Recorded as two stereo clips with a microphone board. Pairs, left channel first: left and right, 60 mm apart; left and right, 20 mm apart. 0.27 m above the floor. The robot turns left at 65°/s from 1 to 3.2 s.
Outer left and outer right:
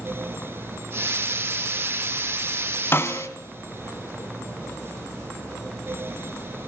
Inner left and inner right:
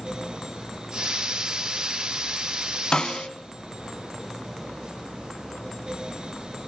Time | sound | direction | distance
2.9 | a snare drum | 40° left (ahead or behind) | 1.3 m